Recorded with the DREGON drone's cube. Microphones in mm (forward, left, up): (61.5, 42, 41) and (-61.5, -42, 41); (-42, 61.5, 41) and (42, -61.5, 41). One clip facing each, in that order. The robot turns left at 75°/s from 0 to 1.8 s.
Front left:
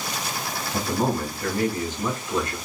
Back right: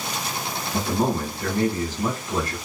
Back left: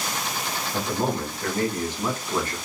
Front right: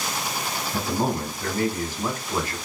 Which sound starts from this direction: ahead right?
A man speaking, at 0.7 s.